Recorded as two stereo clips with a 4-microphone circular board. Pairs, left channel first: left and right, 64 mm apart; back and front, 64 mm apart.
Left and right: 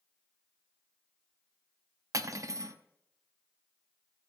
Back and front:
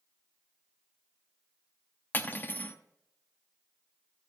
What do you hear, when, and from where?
2.1 s cutlery clinking: 120° right, 0.6 m